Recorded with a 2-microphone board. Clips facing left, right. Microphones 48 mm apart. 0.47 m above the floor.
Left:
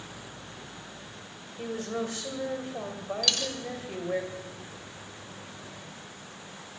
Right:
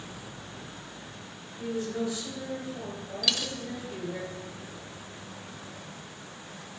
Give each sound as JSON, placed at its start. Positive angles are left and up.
{"t": 1.6, "sound": "a woman speaking", "side_deg": 50, "distance_m": 2.5}
{"t": 3.2, "sound": "a dropped coin", "side_deg": -5, "distance_m": 0.8}